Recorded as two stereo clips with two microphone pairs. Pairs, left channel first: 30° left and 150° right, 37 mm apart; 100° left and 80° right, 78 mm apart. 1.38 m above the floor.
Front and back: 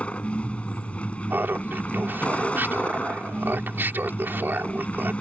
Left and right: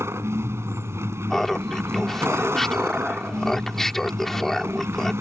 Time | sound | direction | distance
0.0 | a vehicle | 25° right | ?
1.3 | laughter | 175° right | ?